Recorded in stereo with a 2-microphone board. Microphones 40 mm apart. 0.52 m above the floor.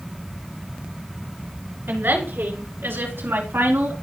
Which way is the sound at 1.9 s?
75° right (ahead or behind).